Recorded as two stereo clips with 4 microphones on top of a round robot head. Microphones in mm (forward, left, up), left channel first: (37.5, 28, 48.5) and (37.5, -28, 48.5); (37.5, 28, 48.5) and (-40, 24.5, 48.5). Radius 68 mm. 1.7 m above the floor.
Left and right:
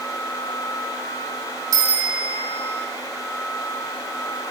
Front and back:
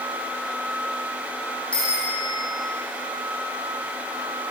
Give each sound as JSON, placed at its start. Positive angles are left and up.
{"t": 1.7, "sound": "a bicycle bell", "azimuth_deg": -75, "distance_m": 4.5}